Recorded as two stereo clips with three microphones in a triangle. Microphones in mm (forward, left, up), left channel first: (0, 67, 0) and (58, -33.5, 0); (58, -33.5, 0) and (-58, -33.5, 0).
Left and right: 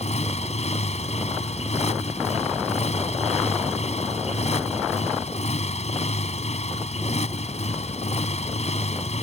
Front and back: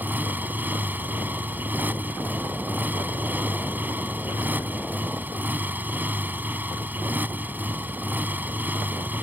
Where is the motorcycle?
105° left.